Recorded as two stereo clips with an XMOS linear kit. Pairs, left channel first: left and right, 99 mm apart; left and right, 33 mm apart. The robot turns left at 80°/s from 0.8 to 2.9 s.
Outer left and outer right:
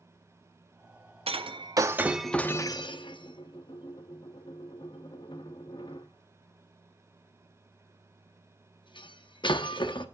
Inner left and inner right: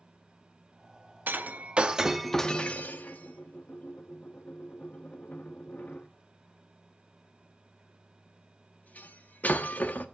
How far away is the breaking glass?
About 0.6 m.